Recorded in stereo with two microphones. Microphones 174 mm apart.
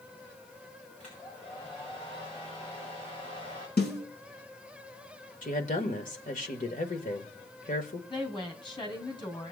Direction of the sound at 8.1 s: 25° left (ahead or behind).